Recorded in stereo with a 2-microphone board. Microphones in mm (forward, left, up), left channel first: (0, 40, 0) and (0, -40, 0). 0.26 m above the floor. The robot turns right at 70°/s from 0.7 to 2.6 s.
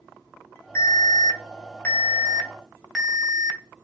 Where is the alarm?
55° left, 2.5 m; by 3.8 s 175° right, 2.5 m.